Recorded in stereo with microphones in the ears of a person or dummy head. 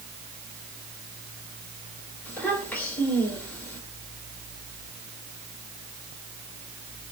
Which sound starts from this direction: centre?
A child speaking, at 2.2 s.